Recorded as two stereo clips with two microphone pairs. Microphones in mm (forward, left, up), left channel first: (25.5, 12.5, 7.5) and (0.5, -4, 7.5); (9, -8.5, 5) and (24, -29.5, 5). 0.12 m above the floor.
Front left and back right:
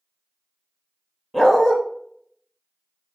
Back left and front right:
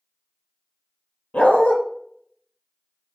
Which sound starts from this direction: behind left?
A dog barking, at 1.3 s.